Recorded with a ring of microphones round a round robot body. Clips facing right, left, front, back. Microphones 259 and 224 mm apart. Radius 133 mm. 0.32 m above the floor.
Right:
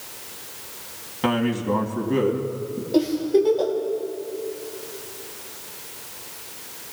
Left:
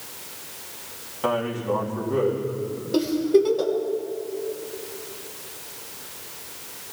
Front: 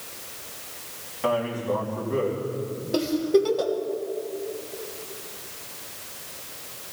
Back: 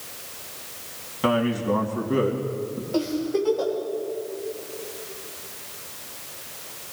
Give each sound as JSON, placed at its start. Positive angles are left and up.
{"t": 1.2, "sound": "a man speaking", "azimuth_deg": -135, "distance_m": 3.0}
{"t": 2.9, "sound": "a giggle", "azimuth_deg": 25, "distance_m": 1.9}